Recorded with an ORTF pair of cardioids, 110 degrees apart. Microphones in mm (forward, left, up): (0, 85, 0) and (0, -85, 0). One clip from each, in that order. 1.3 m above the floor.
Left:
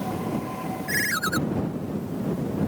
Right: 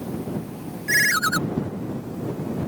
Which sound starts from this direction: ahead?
A ringtone, at 0.9 s.